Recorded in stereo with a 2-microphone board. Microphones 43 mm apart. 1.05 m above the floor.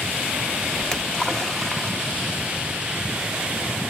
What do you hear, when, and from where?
0.8 s a splash: 10° left (ahead or behind), 0.8 m